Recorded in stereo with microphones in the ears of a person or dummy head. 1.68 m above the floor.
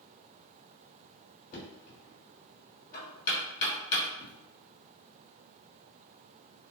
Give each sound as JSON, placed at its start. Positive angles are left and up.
{"t": 1.5, "sound": "knocking", "side_deg": 55, "distance_m": 1.2}